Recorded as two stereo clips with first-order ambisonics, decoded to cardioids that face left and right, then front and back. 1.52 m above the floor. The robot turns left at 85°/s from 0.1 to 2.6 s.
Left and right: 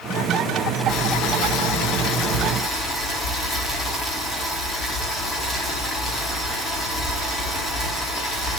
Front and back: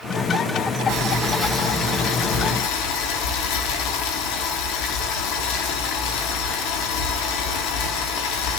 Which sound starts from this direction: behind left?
Boiling, at 0.9 s.